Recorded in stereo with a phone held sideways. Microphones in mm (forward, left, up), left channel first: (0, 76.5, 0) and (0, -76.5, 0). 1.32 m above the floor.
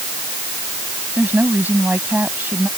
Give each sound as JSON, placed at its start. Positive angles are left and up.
{"t": 1.2, "sound": "a woman speaking", "side_deg": -10}